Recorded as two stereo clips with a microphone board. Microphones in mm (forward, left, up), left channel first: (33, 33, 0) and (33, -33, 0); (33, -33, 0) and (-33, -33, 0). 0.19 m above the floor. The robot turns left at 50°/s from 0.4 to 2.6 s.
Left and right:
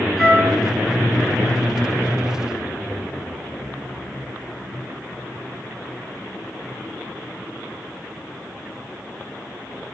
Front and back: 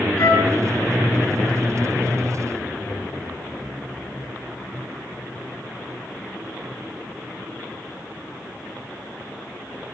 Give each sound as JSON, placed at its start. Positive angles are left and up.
{"t": 0.2, "sound": "a flute", "azimuth_deg": 0, "distance_m": 1.8}